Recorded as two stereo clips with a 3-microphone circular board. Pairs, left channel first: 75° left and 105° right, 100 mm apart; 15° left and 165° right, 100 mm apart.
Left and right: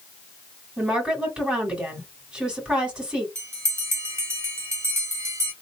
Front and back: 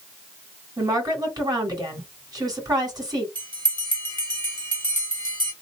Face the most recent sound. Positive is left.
turn(degrees=-160)